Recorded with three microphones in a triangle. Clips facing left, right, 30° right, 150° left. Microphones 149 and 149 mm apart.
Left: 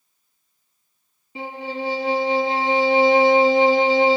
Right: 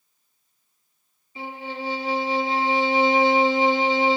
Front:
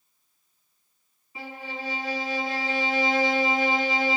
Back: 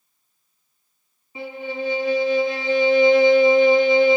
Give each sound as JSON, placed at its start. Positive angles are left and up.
{"t": 1.4, "sound": "a violin", "azimuth_deg": 85, "distance_m": 2.0}